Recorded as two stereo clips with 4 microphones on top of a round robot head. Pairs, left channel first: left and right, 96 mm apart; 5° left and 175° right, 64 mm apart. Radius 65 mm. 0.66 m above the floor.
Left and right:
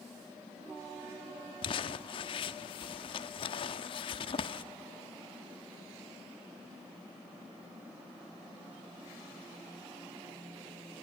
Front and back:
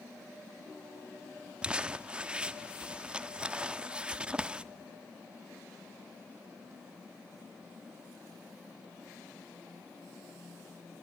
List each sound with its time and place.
1.6 s crumpling: 115° left, 0.9 m